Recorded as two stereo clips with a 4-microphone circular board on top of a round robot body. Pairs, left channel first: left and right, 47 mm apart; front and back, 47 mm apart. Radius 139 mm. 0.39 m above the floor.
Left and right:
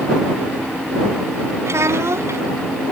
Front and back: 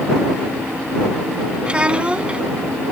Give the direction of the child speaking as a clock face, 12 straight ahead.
4 o'clock.